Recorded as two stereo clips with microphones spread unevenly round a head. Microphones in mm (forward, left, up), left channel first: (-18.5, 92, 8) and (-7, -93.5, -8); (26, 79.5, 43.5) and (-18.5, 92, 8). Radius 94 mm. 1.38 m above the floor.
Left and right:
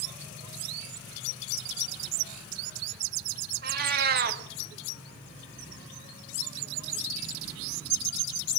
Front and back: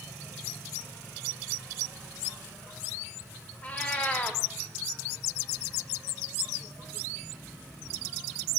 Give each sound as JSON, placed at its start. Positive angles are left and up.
{"t": 3.6, "sound": "a cat meowing", "azimuth_deg": -50, "distance_m": 1.3}